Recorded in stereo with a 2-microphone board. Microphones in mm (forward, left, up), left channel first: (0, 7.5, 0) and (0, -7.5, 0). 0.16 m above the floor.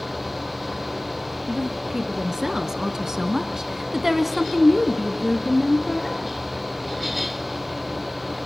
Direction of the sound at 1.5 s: 35° right (ahead or behind).